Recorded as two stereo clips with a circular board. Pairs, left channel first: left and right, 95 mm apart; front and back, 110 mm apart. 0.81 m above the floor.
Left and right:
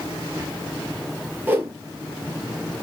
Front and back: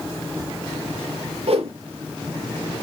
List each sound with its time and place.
1.5 s a whoosh: 160° right, 2.5 m